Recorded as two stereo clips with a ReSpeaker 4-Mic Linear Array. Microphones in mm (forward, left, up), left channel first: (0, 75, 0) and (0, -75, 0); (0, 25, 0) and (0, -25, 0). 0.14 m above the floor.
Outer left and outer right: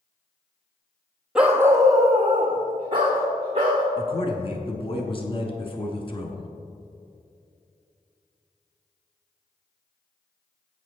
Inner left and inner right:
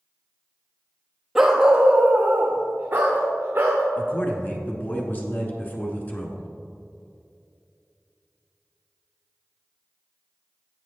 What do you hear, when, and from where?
1.4 s a dog barking: 5° right (ahead or behind), 1.1 m; by 3.8 s 40° right (ahead or behind), 4 m
4.0 s a man speaking: 35° left (ahead or behind), 1.4 m